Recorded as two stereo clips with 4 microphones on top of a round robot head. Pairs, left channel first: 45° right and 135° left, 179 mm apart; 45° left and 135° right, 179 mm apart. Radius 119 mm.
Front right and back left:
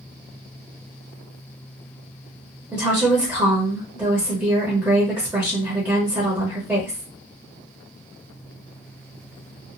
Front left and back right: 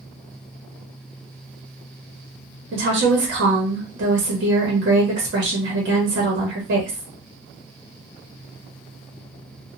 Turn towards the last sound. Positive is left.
turn(degrees=-150)